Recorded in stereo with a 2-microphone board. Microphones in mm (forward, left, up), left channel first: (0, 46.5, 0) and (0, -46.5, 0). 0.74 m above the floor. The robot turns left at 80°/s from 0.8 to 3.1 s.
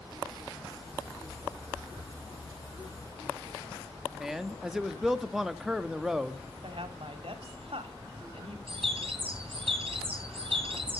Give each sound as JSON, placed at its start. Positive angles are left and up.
{"t": 4.2, "sound": "a man speaking", "side_deg": -5, "distance_m": 0.8}
{"t": 6.6, "sound": "a woman speaking", "side_deg": -70, "distance_m": 1.7}
{"t": 8.7, "sound": "a bird", "side_deg": -65, "distance_m": 3.0}